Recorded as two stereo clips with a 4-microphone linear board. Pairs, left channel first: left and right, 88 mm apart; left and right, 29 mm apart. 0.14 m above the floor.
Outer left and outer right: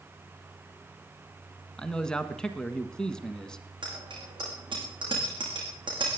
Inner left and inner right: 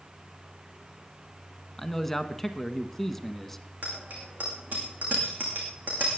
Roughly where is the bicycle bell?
Right.